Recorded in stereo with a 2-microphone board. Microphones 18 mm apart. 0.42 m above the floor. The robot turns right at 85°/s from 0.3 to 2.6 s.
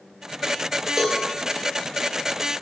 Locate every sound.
1.0 s a cowbell: 20° right (ahead or behind), 1.6 m; by 1.2 s 5° right (ahead or behind), 1.6 m